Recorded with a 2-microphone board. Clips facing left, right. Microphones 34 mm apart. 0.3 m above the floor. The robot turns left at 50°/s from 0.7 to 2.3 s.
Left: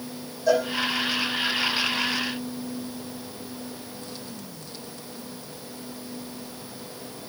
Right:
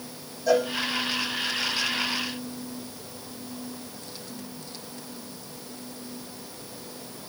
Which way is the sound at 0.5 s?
Centre (ahead or behind).